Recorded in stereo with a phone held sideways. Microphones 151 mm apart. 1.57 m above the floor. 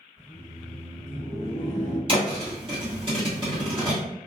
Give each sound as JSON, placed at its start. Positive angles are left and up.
{"t": 0.2, "sound": "laughter", "side_deg": -50, "distance_m": 1.6}
{"t": 2.1, "sound": "a thud", "side_deg": -35, "distance_m": 1.3}